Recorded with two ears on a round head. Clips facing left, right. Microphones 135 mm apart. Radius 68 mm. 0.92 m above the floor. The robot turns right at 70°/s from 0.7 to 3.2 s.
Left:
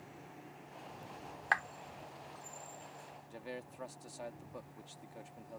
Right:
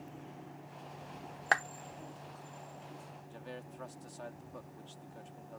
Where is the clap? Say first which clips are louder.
Right 3 dB; 50° right (ahead or behind); by 1.6 s 40° right (ahead or behind).